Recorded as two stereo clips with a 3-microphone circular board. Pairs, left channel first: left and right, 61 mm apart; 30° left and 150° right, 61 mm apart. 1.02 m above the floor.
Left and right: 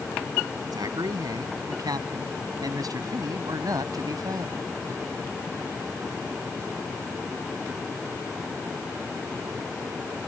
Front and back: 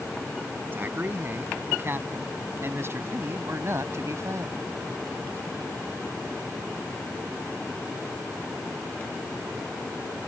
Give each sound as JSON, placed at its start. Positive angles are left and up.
{"t": 0.7, "sound": "a man speaking", "azimuth_deg": -95}